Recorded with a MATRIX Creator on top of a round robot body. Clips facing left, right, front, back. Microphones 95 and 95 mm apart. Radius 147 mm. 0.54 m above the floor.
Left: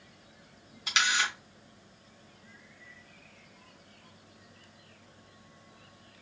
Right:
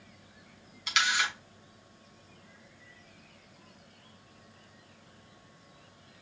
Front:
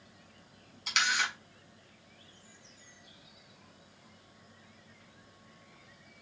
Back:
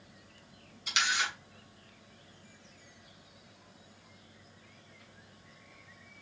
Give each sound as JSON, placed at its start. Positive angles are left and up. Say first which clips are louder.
{"t": 0.9, "sound": "a camera shutter", "louder": "even, front 1 dB", "azimuth_deg": 25, "distance_m": 3.0}